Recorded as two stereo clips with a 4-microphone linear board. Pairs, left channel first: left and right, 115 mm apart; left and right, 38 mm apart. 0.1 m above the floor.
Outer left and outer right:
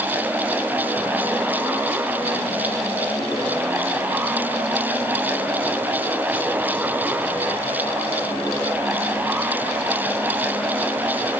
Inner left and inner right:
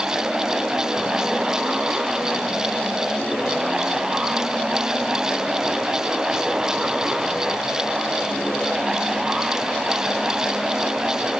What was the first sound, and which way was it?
Only background noise.